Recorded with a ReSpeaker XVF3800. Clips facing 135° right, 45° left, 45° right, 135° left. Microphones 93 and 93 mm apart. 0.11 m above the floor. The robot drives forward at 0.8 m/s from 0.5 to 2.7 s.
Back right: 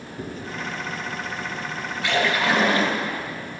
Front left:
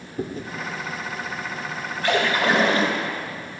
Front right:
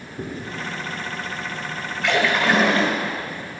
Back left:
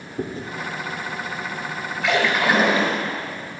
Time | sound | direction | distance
0.2 | chewing | 85° left | 1.2 m
2.0 | a splash | 50° left | 2 m